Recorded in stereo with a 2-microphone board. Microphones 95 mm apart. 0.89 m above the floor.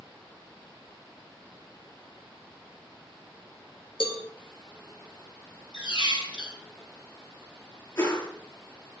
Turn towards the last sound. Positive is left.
turn(degrees=35)  # may be behind; listen again after turning